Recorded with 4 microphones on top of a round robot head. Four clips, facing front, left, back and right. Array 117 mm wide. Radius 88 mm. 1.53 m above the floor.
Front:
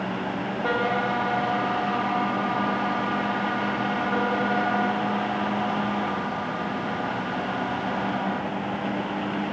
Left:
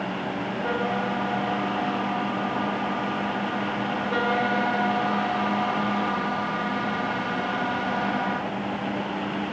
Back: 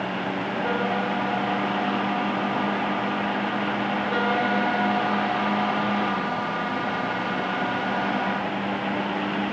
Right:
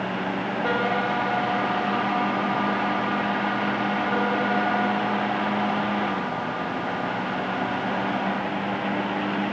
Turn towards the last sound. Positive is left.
No sound to turn to.